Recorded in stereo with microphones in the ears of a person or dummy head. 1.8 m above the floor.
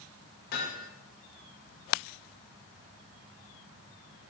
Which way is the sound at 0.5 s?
55° left (ahead or behind).